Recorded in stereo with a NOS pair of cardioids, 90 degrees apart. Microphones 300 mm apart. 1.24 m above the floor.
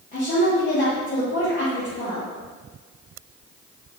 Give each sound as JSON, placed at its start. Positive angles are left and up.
{"t": 0.1, "sound": "a woman speaking", "azimuth_deg": 30, "distance_m": 1.3}